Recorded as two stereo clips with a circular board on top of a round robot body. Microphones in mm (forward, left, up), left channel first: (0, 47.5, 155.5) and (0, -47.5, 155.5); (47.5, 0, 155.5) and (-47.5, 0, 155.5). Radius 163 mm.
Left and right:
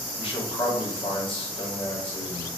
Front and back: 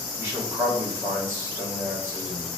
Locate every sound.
0.2 s a man speaking: 110° left, 1.7 m